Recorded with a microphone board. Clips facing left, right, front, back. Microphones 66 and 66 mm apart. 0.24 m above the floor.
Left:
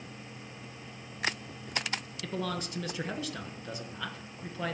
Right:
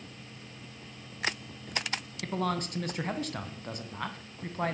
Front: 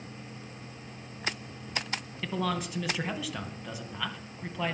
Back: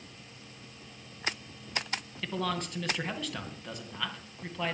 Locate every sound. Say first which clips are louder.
2.2 s a man speaking: right 4 dB, front 2 dB; 85° right, 2.5 m